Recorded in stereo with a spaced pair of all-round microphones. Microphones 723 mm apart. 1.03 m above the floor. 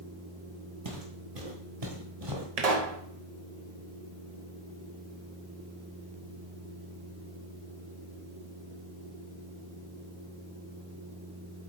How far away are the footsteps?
About 1.5 m.